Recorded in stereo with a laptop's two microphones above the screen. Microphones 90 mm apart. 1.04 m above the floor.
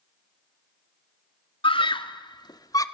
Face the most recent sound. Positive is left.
turn(degrees=40)  # may be behind; listen again after turning